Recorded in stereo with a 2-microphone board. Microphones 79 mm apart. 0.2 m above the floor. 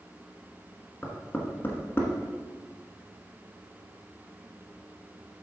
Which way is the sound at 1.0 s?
25° left (ahead or behind).